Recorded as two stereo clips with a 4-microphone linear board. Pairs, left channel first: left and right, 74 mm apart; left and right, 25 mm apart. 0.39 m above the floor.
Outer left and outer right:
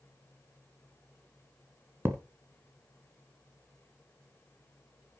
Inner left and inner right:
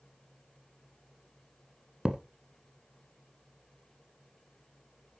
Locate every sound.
2.0 s a thud: 35° right (ahead or behind), 1.2 m